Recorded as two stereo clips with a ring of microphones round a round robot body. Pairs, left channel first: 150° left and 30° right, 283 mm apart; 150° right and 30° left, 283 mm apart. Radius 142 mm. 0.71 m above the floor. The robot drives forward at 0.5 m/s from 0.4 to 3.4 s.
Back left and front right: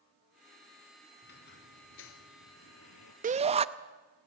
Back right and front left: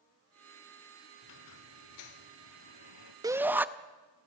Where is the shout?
30° right, 0.6 m; by 3.7 s 40° right, 0.6 m.